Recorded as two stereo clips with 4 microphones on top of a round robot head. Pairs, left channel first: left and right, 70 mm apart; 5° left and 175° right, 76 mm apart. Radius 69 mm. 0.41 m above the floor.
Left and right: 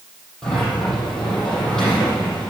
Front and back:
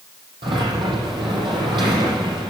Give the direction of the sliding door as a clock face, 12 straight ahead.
6 o'clock.